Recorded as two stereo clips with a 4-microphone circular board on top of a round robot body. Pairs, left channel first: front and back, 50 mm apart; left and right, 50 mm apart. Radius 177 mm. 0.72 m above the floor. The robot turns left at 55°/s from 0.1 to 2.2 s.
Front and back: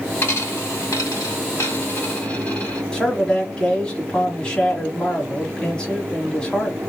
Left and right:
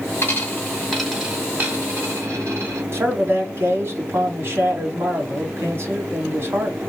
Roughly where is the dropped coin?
Ahead left.